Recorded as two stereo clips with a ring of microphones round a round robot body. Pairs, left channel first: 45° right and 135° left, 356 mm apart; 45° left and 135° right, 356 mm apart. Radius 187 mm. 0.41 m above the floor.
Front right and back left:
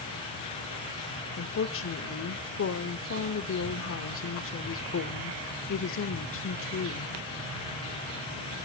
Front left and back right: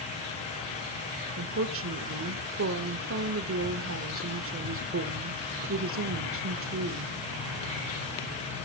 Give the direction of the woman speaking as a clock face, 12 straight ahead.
3 o'clock.